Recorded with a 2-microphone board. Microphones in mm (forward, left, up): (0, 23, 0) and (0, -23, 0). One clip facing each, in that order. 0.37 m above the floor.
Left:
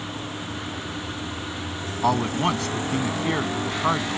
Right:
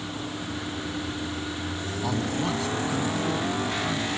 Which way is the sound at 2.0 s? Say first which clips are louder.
Left 7 dB; 65° left (ahead or behind).